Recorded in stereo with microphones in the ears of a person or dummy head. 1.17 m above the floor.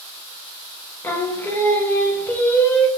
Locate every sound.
1.0 s singing: 10° left (ahead or behind), 0.7 m